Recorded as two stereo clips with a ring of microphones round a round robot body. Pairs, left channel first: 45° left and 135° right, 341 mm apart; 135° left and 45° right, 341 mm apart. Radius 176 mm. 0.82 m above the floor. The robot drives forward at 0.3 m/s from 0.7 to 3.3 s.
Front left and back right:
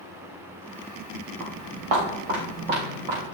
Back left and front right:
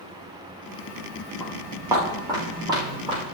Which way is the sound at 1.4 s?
130° right.